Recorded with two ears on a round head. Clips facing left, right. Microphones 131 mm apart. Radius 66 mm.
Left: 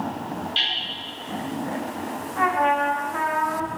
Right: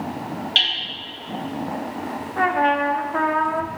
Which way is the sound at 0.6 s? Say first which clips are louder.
Right 3 dB; 85° right.